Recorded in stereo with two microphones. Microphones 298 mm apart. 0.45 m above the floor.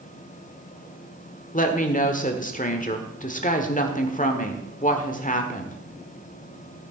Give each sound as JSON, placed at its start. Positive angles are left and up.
{"t": 1.5, "sound": "a woman speaking", "side_deg": 25, "distance_m": 1.3}